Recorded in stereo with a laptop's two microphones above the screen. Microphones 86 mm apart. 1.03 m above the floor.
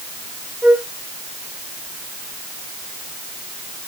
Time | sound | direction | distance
0.6 | a flute | 10° right (ahead or behind) | 2.5 m